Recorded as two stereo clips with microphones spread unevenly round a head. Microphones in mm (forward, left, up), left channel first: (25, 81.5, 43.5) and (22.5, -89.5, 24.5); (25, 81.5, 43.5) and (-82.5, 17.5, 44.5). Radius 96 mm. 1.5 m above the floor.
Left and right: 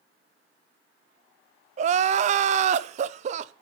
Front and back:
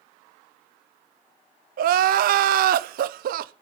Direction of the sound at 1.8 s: 145° right.